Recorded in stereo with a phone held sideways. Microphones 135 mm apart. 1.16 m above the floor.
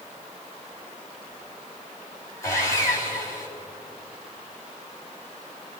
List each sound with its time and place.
2.4 s sawing: 20° left (ahead or behind), 3 m